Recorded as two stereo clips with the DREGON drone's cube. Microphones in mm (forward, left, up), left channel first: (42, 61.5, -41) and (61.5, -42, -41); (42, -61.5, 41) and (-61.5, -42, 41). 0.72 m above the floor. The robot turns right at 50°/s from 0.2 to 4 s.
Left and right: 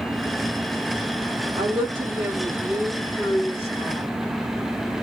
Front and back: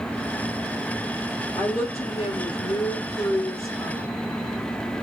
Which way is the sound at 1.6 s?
55° right.